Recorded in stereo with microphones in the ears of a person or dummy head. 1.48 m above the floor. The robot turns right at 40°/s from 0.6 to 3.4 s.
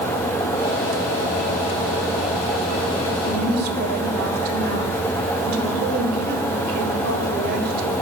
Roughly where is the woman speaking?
Right.